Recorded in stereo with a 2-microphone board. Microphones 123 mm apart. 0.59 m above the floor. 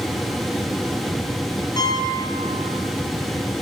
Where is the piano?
30° left (ahead or behind), 6 m.